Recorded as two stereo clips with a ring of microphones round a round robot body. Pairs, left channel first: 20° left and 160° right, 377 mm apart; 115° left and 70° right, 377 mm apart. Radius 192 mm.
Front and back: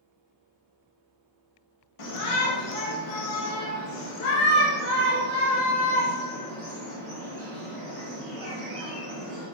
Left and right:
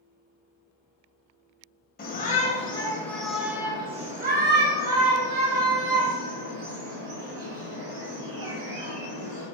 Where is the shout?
50° left, 2 m; by 9.5 s 70° right, 4 m.